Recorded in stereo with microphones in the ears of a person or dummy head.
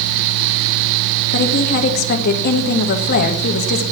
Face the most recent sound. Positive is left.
turn(degrees=50)  # may be behind; listen again after turning